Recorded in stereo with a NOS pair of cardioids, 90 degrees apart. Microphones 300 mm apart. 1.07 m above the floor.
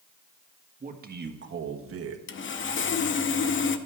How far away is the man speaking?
About 1.6 m.